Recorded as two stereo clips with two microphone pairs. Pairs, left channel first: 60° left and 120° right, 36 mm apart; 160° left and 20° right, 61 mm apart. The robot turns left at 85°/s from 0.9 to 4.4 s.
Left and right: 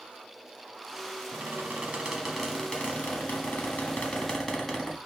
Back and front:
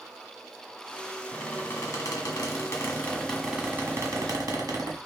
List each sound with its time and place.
1.3 s a squeak: 115° right, 1.4 m; by 5.0 s 20° right, 1.4 m